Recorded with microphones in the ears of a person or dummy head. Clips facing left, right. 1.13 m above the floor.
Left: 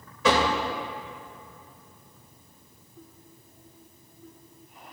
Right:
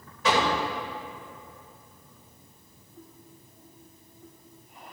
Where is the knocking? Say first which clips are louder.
Left 2 dB; 75° left (ahead or behind), 3.5 m.